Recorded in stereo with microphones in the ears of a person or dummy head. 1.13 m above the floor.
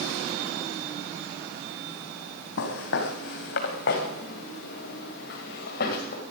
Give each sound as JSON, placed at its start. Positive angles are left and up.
{"t": 2.6, "sound": "footsteps", "side_deg": 70, "distance_m": 3.0}